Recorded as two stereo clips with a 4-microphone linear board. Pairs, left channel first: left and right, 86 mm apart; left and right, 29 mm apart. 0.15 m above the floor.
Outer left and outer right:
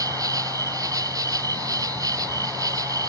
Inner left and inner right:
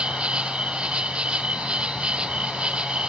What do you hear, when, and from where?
0.0 s an insect: 45° right (ahead or behind)